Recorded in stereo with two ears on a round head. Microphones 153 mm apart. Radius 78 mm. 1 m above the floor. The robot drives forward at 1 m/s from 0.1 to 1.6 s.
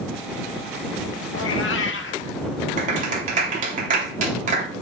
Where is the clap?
50° right (ahead or behind), 3 m.